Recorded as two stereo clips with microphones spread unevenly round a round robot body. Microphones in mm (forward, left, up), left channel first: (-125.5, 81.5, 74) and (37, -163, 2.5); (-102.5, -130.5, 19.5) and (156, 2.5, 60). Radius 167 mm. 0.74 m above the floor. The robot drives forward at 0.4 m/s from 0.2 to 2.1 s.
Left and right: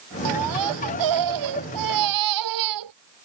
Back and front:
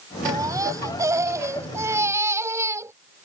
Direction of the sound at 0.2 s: 50° right.